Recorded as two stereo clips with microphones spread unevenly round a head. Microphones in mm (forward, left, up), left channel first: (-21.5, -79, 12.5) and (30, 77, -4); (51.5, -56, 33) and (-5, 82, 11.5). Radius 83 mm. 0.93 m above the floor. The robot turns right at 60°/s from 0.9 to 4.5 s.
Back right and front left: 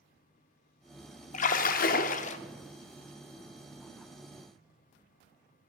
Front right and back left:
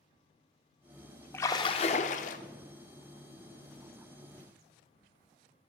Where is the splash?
135° right, 0.6 m; by 2.4 s 75° right, 0.6 m.